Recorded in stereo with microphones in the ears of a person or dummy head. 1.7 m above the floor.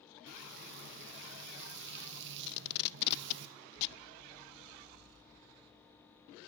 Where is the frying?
60° right (ahead or behind), 2.0 m.